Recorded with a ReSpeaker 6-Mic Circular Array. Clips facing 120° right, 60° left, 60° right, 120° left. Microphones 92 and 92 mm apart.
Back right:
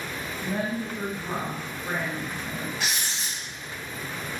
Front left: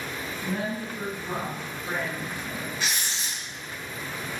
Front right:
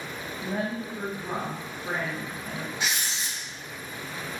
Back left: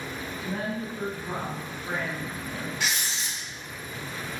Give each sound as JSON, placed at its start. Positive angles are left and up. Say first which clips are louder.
{"t": 0.4, "sound": "a woman speaking", "louder": "back right 2 dB, front right 2 dB", "azimuth_deg": -75, "distance_m": 0.6}
{"t": 2.8, "sound": "writing", "louder": "even, even", "azimuth_deg": -130, "distance_m": 1.1}